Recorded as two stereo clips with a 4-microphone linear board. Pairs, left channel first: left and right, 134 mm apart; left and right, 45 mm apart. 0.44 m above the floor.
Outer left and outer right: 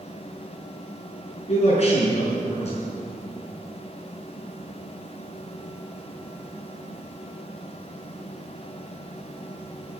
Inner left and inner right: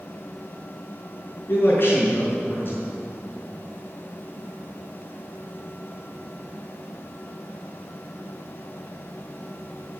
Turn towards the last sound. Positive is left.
turn(degrees=50)  # may be behind; listen again after turning